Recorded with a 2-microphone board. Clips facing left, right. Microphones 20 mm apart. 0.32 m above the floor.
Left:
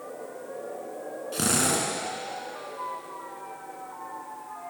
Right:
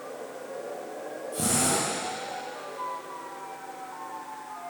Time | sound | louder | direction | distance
1.3 | a drill | left 1 dB | 60° left (ahead or behind) | 3.5 m